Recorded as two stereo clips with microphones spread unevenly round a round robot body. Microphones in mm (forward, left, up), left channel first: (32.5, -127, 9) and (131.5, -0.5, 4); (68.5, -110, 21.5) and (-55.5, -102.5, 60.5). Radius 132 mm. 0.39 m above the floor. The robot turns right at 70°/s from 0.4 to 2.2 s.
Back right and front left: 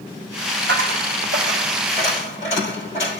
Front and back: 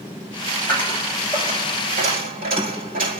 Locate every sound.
0.7 s a dropped coin: 60° left, 8 m; by 3.2 s 165° left, 8 m